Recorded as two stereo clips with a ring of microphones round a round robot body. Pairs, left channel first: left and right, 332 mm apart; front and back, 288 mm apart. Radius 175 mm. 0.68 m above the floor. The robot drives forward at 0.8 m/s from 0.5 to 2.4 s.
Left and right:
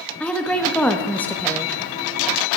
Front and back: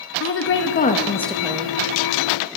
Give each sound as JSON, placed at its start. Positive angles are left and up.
{"t": 0.2, "sound": "a woman speaking", "azimuth_deg": 5, "distance_m": 1.0}